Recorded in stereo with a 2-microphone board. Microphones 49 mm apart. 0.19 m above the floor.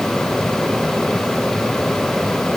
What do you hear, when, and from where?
Only background noise.